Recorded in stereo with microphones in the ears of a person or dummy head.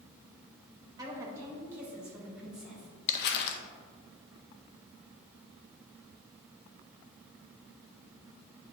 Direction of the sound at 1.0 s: 25° right (ahead or behind).